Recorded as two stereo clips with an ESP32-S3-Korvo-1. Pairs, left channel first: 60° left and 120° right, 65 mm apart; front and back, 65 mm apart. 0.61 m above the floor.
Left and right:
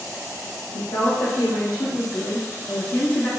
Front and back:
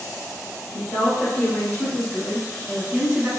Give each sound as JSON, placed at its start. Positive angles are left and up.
{"t": 0.7, "sound": "a woman speaking", "azimuth_deg": 70, "distance_m": 1.6}